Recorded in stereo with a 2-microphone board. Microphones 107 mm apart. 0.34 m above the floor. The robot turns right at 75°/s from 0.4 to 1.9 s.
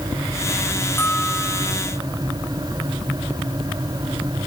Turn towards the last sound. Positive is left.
turn(degrees=-130)